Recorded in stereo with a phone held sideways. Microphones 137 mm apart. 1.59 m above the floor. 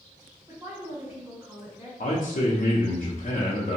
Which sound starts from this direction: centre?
A woman speaking, at 0.5 s.